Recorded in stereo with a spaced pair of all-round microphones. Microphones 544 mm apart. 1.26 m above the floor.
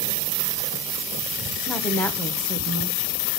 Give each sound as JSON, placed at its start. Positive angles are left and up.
{"t": 1.7, "sound": "a woman speaking", "side_deg": 5, "distance_m": 1.0}